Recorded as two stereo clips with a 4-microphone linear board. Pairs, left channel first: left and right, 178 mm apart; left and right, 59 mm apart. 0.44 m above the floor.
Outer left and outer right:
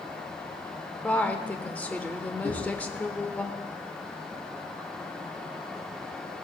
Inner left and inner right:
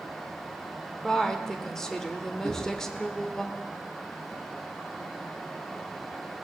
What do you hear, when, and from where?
1.0 s a woman speaking: 10° left (ahead or behind), 1.0 m
2.4 s knocking: 65° left (ahead or behind), 3.5 m